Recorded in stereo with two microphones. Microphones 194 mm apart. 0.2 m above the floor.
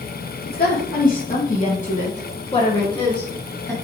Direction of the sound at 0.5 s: 55° left (ahead or behind).